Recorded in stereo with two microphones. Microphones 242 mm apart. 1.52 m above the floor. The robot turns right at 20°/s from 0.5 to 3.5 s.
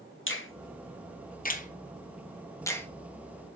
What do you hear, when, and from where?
0.3 s a finger snap: 55° left (ahead or behind), 0.9 m; by 2.9 s 10° left (ahead or behind), 0.9 m